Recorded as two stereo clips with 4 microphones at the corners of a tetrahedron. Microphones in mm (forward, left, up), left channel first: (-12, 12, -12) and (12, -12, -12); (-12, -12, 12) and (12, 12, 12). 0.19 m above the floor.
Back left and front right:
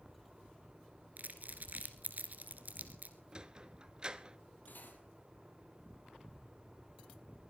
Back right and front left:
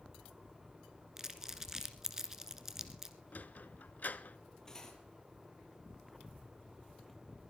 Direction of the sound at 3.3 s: 110° right.